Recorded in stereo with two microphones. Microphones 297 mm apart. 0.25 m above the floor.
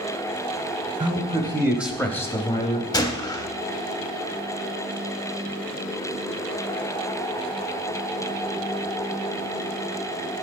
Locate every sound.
1.0 s a man speaking: 25° right (ahead or behind), 1.0 m; by 2.8 s 20° left (ahead or behind), 1.2 m
2.9 s a gunshot: 15° left (ahead or behind), 0.7 m